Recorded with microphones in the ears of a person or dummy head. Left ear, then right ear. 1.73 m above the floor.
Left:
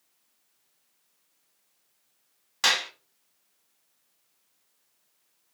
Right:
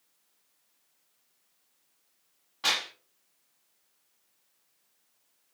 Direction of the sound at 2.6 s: 70° left (ahead or behind).